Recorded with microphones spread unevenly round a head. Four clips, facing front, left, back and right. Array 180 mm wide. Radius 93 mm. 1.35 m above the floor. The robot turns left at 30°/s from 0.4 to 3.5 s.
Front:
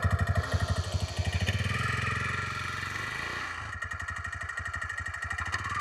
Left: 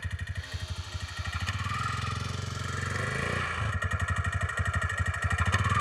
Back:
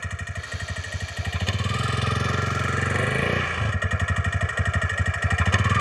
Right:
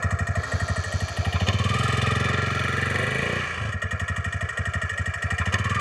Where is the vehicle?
70° right; by 5.8 s 165° right.